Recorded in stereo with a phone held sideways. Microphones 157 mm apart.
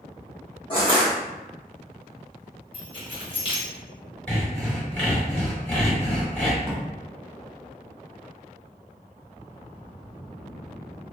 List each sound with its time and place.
0.7 s crushing: 35° left (ahead or behind), 1.0 m
2.7 s keys jangling: 35° left (ahead or behind), 1.2 m
4.3 s sawing: 10° left (ahead or behind), 1.7 m
6.6 s a drawer: 15° right (ahead or behind), 1.4 m